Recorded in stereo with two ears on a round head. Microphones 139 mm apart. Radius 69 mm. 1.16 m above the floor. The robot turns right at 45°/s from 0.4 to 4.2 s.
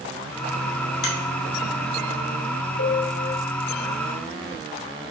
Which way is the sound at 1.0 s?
80° left.